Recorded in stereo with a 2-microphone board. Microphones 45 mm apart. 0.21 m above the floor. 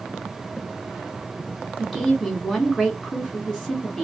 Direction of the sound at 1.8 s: 5° left (ahead or behind).